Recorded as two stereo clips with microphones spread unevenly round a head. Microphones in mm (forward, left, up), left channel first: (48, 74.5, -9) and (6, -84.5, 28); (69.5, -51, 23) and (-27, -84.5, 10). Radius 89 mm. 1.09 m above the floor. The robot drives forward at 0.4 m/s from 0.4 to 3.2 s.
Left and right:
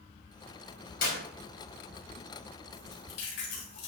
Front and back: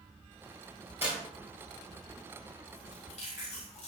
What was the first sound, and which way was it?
A clap, 120° left.